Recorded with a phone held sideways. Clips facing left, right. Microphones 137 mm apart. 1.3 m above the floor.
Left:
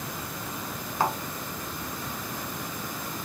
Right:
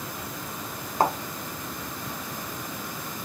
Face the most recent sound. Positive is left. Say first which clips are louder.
# right 3 dB
turn(degrees=-45)  # may be behind; listen again after turning